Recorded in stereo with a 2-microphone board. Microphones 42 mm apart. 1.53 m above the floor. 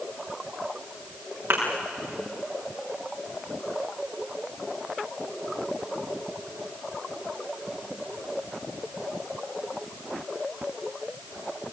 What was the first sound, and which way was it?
A thud, 60° right (ahead or behind).